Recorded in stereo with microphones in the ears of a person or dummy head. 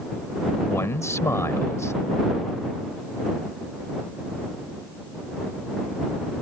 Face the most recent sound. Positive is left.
turn(degrees=20)  # may be behind; listen again after turning